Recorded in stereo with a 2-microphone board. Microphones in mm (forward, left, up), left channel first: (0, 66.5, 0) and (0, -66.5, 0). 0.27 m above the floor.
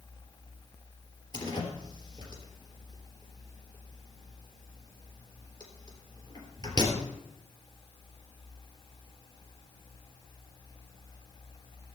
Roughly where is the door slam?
Left.